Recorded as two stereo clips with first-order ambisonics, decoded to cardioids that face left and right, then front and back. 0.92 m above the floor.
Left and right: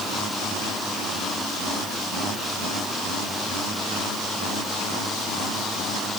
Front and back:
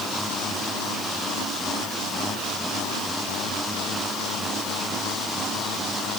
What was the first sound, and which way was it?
Only background noise.